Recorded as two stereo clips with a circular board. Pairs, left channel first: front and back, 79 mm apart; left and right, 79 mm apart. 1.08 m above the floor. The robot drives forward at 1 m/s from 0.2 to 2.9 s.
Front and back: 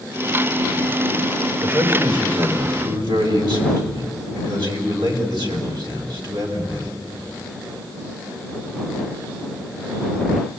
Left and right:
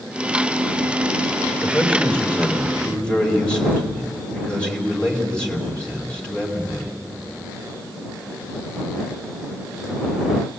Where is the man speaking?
160° left, 3.5 m; by 7.0 s 165° left, 4.5 m.